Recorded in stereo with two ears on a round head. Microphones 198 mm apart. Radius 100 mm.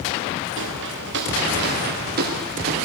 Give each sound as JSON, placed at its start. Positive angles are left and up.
{"t": 0.6, "sound": "footsteps", "side_deg": -55, "distance_m": 6.0}